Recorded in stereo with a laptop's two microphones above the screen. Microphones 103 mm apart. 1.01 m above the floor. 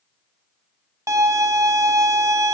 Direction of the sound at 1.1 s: 25° right (ahead or behind).